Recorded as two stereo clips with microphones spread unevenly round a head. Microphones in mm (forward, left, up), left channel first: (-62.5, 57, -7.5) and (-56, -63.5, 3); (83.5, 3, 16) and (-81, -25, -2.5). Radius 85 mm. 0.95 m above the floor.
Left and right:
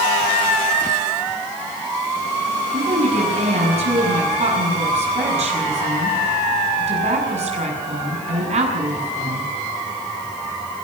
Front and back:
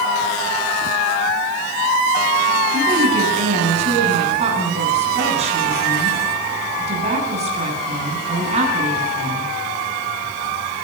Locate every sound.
2.7 s a woman speaking: 115° right, 8.5 m